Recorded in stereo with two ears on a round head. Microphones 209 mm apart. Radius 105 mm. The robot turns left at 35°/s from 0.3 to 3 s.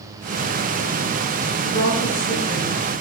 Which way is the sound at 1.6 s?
85° left.